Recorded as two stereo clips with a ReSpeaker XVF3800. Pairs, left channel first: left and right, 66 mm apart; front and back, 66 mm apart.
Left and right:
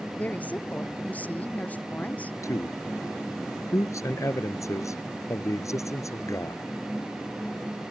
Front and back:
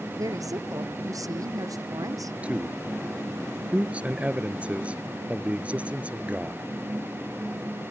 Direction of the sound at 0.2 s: 155° left.